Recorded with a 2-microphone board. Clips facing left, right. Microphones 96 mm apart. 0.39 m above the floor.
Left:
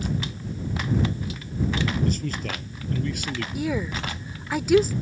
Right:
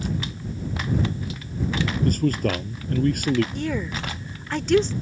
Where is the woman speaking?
10° left (ahead or behind).